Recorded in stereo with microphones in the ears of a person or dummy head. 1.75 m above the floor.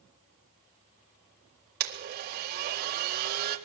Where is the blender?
55° right (ahead or behind), 4 m.